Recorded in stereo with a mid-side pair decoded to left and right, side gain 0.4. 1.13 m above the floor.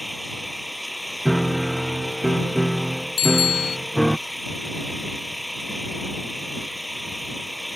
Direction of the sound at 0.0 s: Straight ahead.